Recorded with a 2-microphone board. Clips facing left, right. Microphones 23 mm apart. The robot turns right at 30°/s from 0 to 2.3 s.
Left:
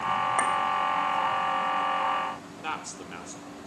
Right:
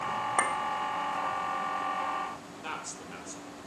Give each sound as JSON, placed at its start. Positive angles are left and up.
{"t": 0.4, "sound": "a clink", "side_deg": -30, "distance_m": 0.8}
{"t": 2.6, "sound": "a man speaking", "side_deg": 25, "distance_m": 0.7}